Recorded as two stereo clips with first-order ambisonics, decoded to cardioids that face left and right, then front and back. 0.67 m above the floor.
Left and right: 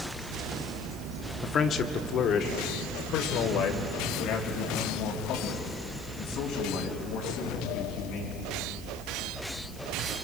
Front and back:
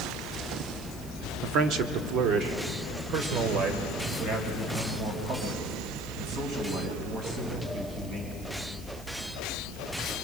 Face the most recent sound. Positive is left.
turn(degrees=125)